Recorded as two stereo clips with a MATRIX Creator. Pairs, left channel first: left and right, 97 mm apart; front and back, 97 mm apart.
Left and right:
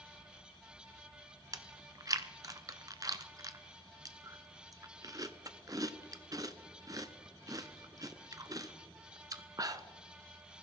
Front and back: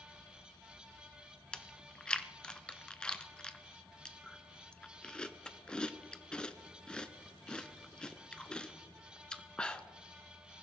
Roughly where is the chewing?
Right.